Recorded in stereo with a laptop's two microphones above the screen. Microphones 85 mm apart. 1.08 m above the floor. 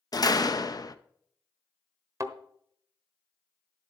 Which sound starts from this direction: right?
A thud, at 2.2 s.